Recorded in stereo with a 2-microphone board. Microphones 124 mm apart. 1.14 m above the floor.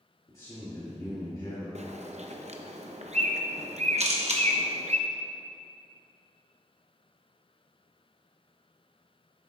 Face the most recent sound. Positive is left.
turn(degrees=-65)  # may be behind; listen again after turning